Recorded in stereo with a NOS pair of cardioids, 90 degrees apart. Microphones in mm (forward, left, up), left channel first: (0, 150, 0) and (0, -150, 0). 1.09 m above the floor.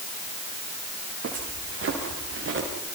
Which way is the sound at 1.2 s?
45° right.